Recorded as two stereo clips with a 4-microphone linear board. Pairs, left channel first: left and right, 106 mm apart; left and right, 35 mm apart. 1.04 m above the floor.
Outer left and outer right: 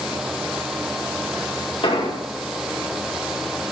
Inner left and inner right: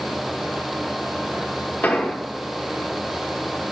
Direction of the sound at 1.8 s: 65° left (ahead or behind).